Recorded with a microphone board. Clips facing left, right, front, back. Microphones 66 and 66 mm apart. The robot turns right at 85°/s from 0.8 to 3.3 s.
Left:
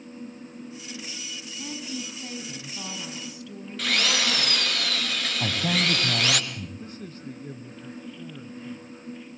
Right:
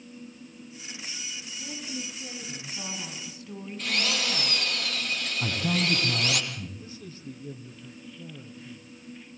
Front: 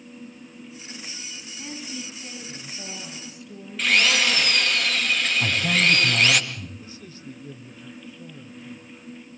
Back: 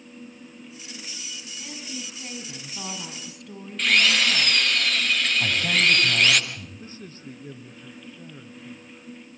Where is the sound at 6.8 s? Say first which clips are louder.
Left 4 dB, back 1 dB; 130° left, 3.5 m.